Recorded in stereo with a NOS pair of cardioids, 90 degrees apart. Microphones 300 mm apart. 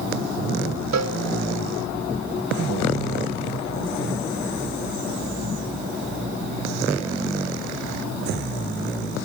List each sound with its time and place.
0.9 s a cowbell: 65° right, 1.8 m